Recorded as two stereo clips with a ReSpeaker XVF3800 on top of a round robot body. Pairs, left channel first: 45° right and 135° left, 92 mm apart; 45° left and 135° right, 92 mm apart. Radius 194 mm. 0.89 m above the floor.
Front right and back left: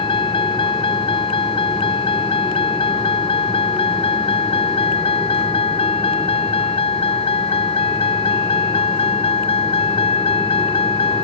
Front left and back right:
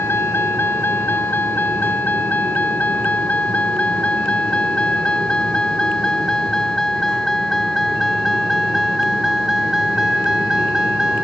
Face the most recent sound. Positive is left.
turn(degrees=-50)